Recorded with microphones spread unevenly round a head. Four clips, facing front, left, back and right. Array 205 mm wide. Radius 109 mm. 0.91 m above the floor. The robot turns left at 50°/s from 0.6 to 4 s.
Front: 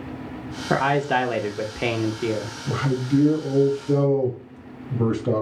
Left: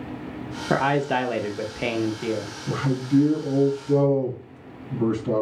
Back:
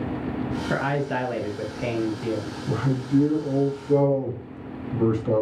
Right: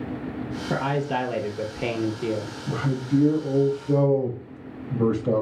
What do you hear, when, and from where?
0.7 s a man speaking: 55° left, 0.6 m; by 2.5 s 40° right, 0.6 m
2.7 s a man speaking: 20° left, 2.5 m; by 5.4 s 45° right, 2.5 m